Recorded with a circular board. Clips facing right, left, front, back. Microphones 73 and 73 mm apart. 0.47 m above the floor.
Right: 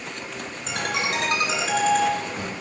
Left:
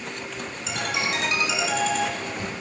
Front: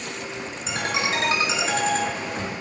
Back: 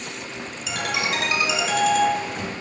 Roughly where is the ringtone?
Ahead right.